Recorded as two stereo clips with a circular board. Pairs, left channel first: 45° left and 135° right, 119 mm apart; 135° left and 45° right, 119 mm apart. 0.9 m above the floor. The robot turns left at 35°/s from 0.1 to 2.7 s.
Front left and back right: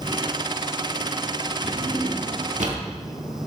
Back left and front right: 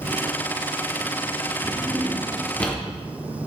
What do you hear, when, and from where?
1.6 s a drawer: 110° right, 1.3 m; by 2.8 s 150° right, 1.3 m